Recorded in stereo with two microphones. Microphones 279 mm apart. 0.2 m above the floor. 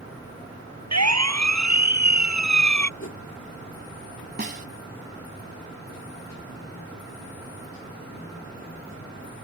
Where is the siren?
70° right (ahead or behind); by 2.9 s 75° right (ahead or behind).